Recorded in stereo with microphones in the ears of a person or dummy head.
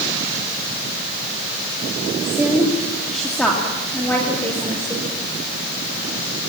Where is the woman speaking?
15° right (ahead or behind), 1.3 m; by 5.1 s 10° left (ahead or behind), 5 m.